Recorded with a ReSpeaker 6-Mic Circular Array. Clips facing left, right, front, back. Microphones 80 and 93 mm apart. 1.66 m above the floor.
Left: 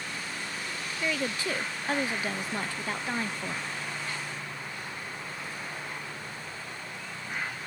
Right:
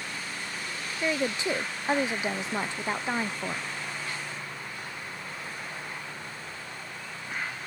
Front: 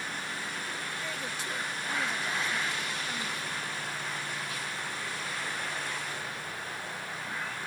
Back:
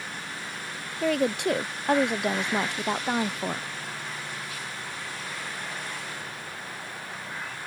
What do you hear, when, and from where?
1.0 s a woman speaking: 160° right